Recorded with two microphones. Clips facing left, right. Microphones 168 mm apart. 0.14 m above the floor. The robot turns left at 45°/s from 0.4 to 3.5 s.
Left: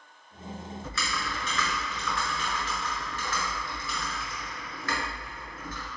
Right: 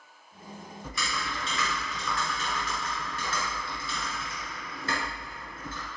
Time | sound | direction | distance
0.8 | typing on a keyboard | 15° right | 1.7 m